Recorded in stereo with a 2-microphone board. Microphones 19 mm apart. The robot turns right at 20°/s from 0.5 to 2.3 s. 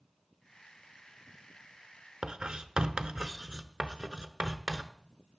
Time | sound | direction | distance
2.2 | writing | 40° right (ahead or behind) | 0.8 m